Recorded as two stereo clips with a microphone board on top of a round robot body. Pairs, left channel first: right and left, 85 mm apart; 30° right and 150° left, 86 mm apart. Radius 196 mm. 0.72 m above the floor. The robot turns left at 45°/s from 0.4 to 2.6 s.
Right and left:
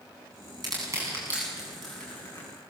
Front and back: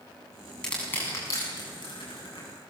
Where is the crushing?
50° left, 8.5 m; by 2.5 s 35° right, 8.5 m.